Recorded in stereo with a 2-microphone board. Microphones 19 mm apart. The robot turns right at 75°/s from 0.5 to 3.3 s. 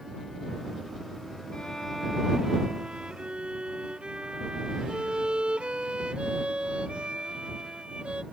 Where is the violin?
135° left; by 8.2 s 90° right.